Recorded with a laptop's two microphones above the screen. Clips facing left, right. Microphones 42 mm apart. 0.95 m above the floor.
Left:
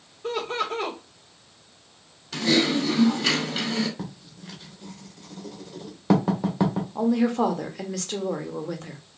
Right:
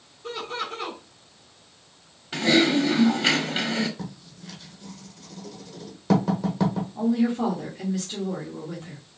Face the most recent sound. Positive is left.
turn(degrees=70)  # may be behind; listen again after turning